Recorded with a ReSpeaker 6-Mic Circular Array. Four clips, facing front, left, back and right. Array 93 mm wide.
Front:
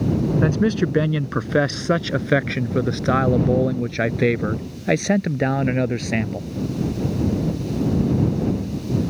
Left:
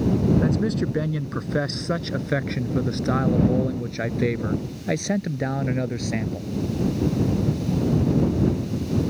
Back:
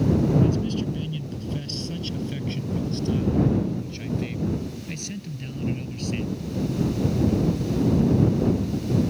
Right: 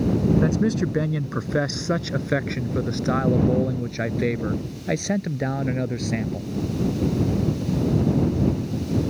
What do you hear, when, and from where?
0.4 s a man speaking: 10° right; by 6.5 s straight ahead